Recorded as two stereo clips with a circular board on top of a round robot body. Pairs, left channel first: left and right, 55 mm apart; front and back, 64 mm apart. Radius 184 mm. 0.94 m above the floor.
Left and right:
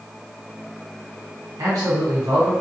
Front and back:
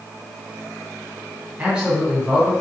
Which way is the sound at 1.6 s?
105° right.